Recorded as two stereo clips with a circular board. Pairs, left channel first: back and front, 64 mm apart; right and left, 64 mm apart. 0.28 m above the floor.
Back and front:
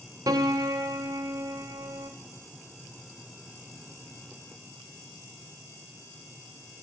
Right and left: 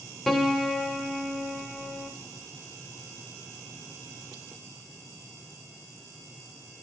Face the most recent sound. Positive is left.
turn(degrees=-5)